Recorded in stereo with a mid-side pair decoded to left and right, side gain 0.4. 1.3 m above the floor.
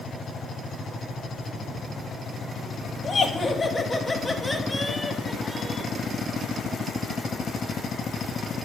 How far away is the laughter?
About 1.9 m.